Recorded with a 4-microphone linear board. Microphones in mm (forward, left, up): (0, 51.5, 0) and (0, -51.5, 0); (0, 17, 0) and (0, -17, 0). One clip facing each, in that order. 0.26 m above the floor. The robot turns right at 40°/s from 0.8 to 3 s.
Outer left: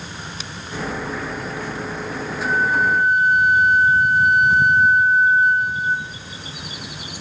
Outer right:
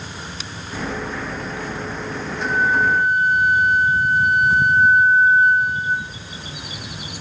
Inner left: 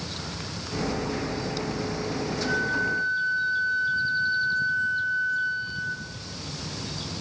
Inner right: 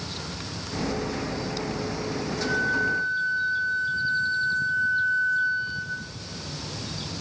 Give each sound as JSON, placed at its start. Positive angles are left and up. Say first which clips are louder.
{"t": 2.4, "sound": "a flute", "louder": "outer right 1 dB, inner right 2 dB", "side_deg": -10, "distance_m": 3.0}